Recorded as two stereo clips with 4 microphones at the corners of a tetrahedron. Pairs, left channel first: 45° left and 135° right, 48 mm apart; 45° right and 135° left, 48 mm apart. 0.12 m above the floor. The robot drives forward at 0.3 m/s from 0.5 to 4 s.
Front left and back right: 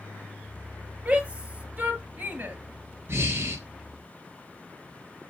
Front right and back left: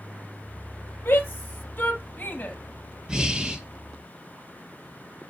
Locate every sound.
1.1 s a shout: 80° right, 2.5 m; by 2.6 s 95° right, 2.5 m
3.1 s breathing: 150° right, 1.6 m; by 3.6 s 155° right, 1.7 m